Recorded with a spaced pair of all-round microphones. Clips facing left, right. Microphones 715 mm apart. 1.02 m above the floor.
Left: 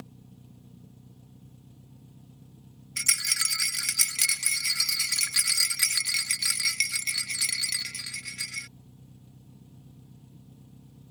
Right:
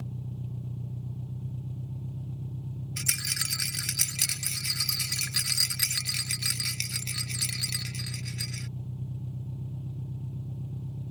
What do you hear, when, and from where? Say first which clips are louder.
0.0 s an engine running: right 8 dB; 80° right
3.0 s a rattle: right 8 dB; 35° left (ahead or behind)